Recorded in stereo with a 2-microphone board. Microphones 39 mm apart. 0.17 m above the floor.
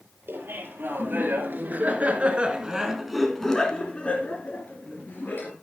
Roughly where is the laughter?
Right.